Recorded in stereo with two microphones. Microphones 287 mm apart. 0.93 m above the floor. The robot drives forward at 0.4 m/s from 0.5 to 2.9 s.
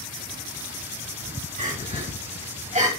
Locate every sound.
1.6 s crying: 25° right (ahead or behind), 6 m